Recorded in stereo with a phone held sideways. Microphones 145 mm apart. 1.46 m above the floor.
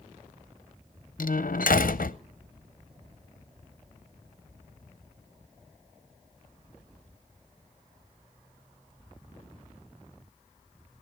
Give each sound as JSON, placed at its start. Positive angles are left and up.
{"t": 1.2, "sound": "a door slam", "side_deg": 70, "distance_m": 0.7}